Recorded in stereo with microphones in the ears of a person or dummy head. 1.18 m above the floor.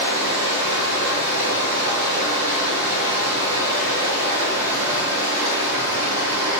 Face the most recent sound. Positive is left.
turn(degrees=-60)  # may be behind; listen again after turning